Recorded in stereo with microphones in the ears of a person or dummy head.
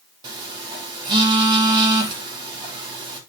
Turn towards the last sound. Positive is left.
turn(degrees=-25)  # may be behind; listen again after turning